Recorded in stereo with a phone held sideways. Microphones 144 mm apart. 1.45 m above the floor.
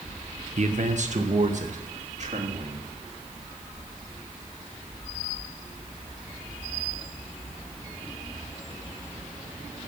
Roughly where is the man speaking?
Right.